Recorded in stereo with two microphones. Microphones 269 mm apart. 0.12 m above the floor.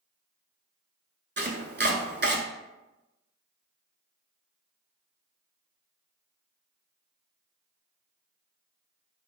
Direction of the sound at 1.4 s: 40° right (ahead or behind).